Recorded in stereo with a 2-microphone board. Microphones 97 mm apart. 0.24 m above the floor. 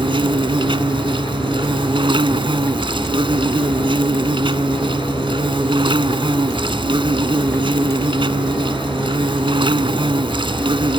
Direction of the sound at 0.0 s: 60° right (ahead or behind).